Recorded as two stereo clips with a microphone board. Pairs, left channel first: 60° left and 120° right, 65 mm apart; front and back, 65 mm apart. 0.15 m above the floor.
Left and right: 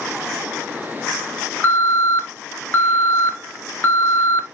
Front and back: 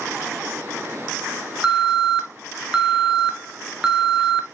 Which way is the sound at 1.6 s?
110° left.